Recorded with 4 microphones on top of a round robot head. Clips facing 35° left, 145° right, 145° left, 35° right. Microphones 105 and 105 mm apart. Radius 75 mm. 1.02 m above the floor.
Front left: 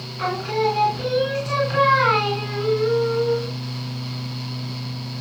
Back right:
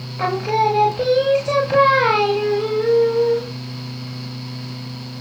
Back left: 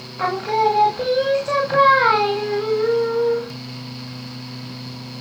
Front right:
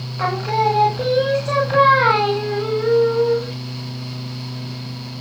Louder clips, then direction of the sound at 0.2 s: Back right 4 dB, even; 125° right.